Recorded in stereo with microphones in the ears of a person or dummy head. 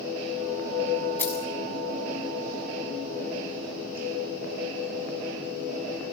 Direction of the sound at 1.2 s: 10° left (ahead or behind).